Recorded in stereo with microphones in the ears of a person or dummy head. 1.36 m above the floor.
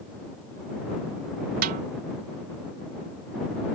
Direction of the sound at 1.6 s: 60° right (ahead or behind).